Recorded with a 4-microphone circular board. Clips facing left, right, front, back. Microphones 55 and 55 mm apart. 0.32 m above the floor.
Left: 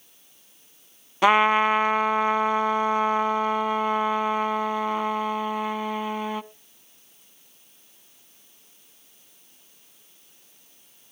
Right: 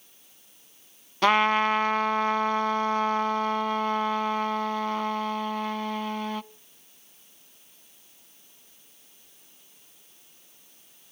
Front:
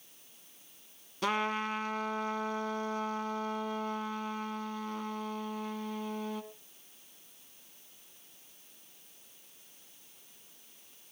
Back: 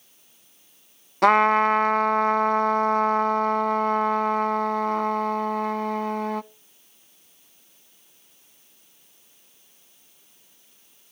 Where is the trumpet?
165° left, 0.5 m.